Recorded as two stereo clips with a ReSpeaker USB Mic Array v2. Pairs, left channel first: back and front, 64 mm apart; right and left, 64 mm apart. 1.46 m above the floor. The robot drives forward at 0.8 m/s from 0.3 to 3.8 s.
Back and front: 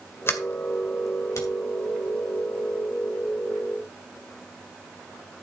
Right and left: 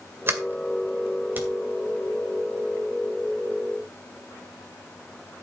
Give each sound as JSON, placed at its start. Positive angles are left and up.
{"t": 0.3, "sound": "a sliding door", "azimuth_deg": 135, "distance_m": 2.0}